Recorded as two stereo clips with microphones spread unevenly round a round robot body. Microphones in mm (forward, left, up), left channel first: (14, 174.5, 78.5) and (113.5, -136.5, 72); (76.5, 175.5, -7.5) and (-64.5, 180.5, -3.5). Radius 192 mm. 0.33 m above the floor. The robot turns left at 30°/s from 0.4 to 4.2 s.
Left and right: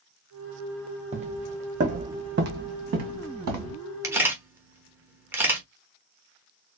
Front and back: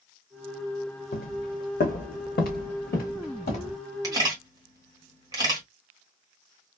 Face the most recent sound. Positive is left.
turn(degrees=-150)